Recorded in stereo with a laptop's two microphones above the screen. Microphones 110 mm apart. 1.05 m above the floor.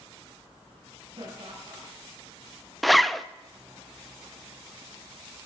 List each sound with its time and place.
1.2 s laughter: 60° right (ahead or behind), 4.5 m
2.8 s a zipper: centre (ahead or behind), 0.6 m